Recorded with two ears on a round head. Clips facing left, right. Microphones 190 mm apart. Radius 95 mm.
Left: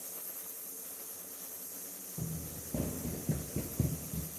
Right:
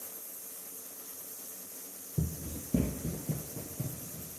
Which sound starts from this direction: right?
Running footsteps, at 2.2 s.